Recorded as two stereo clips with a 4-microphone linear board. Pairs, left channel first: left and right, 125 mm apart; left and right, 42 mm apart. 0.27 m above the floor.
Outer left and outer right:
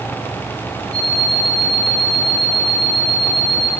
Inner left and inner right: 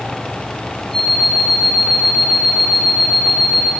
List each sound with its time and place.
0.9 s an alarm clock: 10° left (ahead or behind), 8 m